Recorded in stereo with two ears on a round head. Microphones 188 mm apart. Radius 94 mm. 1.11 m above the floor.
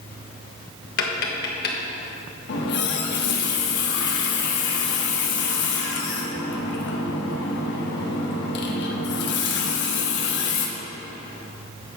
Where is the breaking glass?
No breaking glass in this recording.